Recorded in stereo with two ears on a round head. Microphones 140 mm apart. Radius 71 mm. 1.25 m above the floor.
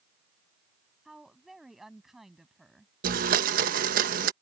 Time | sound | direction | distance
1.1 | a woman speaking | 5° right (ahead or behind) | ?
3.0 | a blender | 60° right (ahead or behind) | ?